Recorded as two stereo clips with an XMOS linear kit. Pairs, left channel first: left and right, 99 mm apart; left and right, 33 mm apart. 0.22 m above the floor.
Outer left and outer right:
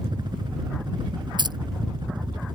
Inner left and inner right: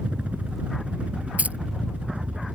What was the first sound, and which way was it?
A helicopter, 45° right (ahead or behind).